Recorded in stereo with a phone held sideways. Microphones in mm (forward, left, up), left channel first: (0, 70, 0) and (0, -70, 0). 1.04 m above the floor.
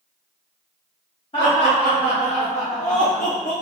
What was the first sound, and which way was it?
Laughter, 40° left (ahead or behind).